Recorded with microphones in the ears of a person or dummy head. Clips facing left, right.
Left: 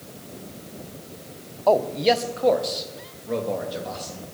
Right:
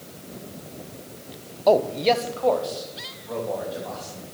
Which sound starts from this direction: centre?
A man speaking, at 1.7 s.